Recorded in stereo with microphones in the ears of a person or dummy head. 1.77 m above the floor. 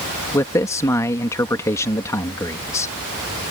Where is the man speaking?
15° left (ahead or behind).